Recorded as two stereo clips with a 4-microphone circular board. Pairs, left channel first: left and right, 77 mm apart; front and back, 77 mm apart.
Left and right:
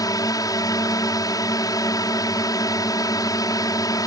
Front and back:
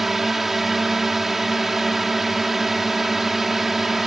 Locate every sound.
0.0 s a drone: 95° left